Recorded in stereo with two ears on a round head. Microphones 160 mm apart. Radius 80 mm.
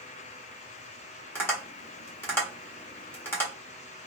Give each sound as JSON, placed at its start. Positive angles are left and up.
{"t": 1.4, "sound": "tapping", "side_deg": 15, "distance_m": 0.9}